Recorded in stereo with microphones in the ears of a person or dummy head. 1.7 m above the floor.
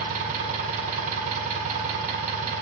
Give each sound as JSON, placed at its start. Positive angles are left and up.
{"t": 0.0, "sound": "an engine running", "side_deg": -40, "distance_m": 0.9}